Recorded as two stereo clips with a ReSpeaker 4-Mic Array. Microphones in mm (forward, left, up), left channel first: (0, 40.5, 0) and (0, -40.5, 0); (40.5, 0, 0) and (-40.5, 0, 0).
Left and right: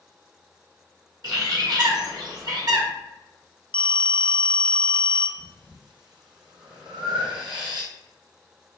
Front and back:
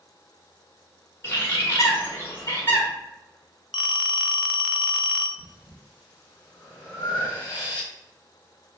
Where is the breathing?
65° right, 2.5 m.